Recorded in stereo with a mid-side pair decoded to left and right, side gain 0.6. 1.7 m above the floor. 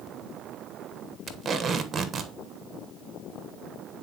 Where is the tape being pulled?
30° right, 1.2 m.